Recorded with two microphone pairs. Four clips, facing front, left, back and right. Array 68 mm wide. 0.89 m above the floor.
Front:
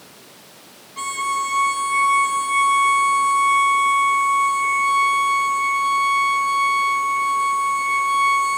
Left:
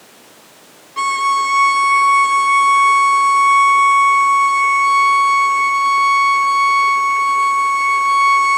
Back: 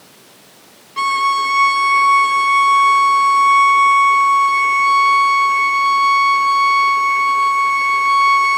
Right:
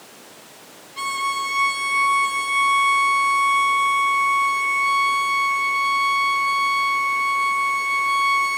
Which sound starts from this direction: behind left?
A violin, at 1.0 s.